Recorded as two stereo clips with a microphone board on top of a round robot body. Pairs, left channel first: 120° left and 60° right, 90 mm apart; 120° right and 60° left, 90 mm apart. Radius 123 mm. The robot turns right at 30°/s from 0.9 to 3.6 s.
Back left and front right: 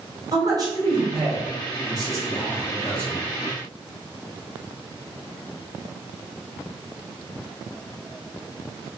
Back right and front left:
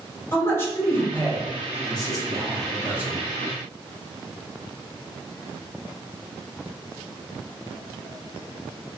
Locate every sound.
0.3 s a man speaking: 70° right, 1.3 m; by 3.2 s straight ahead, 1.3 m